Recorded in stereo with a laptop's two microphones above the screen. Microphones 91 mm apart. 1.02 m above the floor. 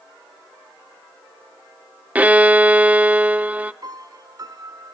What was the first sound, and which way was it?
A violin, 15° right (ahead or behind).